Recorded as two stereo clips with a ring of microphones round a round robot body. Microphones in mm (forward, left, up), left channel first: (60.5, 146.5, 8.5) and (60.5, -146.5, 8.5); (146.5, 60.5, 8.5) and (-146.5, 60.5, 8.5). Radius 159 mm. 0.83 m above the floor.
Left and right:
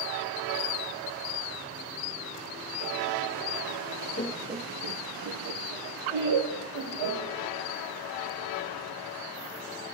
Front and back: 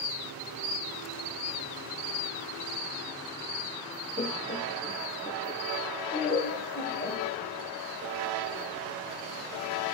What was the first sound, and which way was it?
Laughter, 55° left.